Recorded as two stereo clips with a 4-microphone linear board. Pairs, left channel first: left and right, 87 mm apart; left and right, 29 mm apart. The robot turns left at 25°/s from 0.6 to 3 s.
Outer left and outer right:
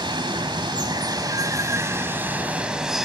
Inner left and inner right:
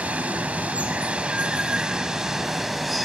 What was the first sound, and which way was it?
Running water, 115° right.